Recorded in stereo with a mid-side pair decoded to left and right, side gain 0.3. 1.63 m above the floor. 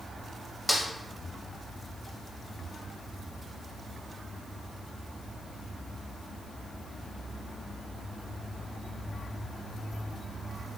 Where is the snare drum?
20° left, 0.9 m.